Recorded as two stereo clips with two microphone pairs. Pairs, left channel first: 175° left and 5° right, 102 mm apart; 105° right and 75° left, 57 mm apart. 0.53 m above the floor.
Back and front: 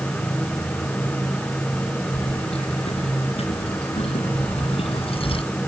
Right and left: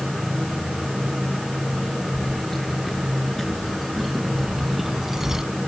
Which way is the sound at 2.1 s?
165° left.